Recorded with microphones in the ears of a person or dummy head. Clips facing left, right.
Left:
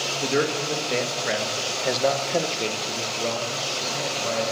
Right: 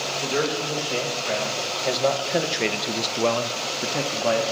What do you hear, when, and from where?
0.2 s a man speaking: 30° left (ahead or behind), 1.5 m; by 4.4 s 80° right, 1.0 m